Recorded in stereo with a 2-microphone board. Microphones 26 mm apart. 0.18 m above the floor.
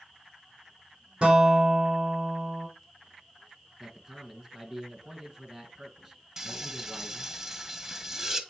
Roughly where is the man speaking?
Centre.